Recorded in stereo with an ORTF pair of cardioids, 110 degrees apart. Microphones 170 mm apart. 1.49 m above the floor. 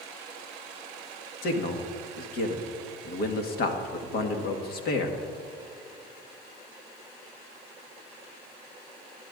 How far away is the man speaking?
About 1.6 m.